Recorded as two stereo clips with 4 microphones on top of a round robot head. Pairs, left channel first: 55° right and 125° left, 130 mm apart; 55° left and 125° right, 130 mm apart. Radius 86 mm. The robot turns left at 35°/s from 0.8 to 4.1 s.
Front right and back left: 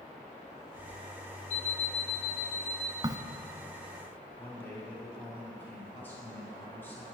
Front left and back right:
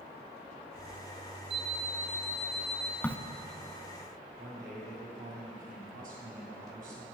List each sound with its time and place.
1.5 s an alarm clock: 80° right, 2 m; by 2.9 s 130° right, 2 m
3.0 s a crack: 115° left, 0.7 m; by 3.2 s 110° left, 0.7 m
4.4 s a man speaking: 130° right, 5 m